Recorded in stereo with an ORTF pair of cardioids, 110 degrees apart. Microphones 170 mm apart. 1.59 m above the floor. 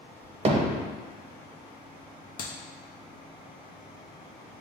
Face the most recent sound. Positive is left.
turn(degrees=55)